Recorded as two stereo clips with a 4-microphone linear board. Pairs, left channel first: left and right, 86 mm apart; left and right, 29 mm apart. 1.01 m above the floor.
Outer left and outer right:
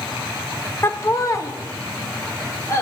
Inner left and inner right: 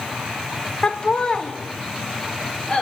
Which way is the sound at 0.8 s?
25° left (ahead or behind).